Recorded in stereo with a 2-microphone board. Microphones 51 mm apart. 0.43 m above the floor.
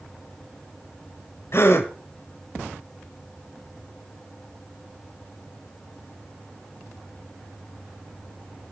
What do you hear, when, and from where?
1.5 s a gasp: 50° left (ahead or behind), 1.5 m